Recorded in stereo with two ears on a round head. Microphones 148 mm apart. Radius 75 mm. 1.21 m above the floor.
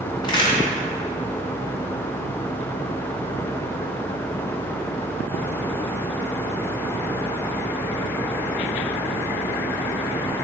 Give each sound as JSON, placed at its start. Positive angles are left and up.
{"t": 0.2, "sound": "a crack", "side_deg": 30, "distance_m": 2.5}